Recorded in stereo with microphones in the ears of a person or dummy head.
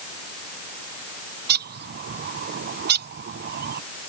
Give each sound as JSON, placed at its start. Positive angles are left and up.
{"t": 1.5, "sound": "a bird", "side_deg": -40}